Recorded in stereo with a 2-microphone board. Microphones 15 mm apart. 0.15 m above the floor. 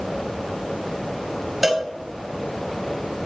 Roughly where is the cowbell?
Centre.